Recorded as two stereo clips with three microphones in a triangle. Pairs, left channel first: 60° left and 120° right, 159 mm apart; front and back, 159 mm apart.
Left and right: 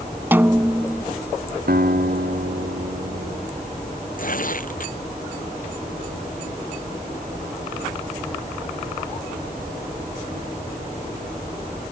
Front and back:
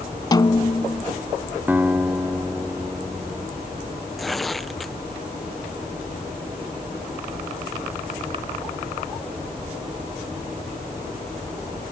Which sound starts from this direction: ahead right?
A snare drum, at 0.3 s.